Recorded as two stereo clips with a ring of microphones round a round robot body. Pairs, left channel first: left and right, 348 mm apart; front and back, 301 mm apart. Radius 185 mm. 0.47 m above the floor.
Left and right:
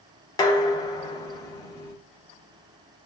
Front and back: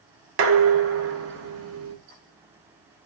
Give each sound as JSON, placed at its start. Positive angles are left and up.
{"t": 0.4, "sound": "dishes clattering", "azimuth_deg": 165, "distance_m": 0.6}